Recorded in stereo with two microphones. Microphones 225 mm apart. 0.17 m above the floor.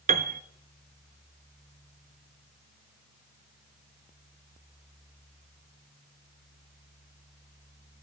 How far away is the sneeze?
I don't hear a sneeze.